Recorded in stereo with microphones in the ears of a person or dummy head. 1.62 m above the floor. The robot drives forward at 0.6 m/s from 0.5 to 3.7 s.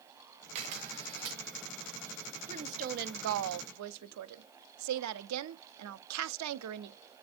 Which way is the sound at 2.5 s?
35° right (ahead or behind).